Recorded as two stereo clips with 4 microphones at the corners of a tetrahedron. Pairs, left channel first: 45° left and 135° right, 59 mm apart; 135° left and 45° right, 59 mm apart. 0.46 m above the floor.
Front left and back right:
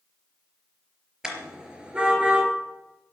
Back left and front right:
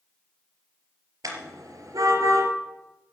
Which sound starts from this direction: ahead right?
A car horn, at 1.2 s.